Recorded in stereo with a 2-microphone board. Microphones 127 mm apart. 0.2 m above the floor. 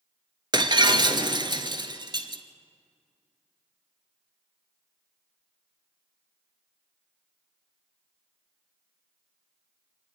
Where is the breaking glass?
35° right (ahead or behind), 1.2 m.